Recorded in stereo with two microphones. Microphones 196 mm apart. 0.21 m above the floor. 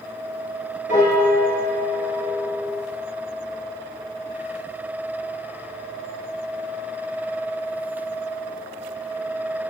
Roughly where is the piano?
Left.